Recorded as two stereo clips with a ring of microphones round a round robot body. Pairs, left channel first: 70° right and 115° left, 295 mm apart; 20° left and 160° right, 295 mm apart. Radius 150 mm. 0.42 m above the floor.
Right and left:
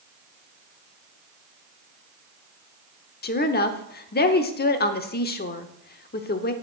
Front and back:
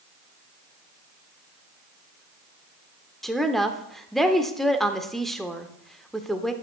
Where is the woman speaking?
65° right, 0.8 m.